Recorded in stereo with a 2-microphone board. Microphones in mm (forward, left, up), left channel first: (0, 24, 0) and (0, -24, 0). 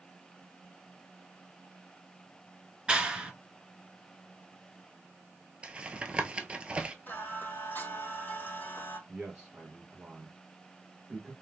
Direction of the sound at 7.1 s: 40° left (ahead or behind).